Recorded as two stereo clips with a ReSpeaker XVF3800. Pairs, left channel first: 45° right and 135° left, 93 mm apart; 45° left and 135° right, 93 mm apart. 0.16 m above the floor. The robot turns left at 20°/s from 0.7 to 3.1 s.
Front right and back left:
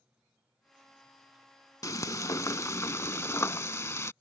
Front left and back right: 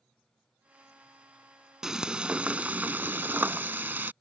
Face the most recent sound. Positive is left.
turn(degrees=-80)